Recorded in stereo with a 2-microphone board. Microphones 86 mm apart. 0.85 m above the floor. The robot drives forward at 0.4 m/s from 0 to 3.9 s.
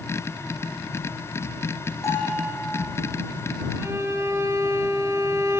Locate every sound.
2.0 s a bell: 40° left (ahead or behind), 8.5 m
3.8 s a violin: 35° right (ahead or behind), 1.7 m